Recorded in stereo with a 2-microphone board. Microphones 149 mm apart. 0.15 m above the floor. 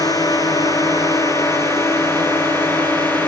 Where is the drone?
25° left (ahead or behind); by 3.3 s 15° left (ahead or behind).